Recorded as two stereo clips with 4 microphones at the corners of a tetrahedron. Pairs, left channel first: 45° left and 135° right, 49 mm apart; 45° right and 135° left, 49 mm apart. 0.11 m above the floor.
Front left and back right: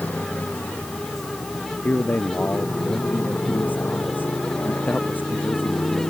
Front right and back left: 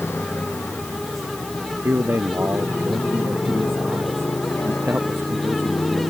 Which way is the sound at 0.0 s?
10° right.